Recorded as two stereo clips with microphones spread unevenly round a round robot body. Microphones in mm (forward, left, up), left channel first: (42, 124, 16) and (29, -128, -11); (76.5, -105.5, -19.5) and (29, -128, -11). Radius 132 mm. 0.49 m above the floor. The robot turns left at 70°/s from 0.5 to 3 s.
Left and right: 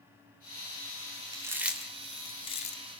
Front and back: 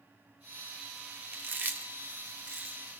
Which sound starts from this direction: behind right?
Chewing, at 1.3 s.